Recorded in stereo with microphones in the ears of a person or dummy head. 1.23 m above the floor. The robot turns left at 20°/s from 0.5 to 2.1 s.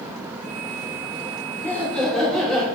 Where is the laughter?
10° left (ahead or behind), 0.9 m; by 2.7 s 5° left (ahead or behind), 0.9 m.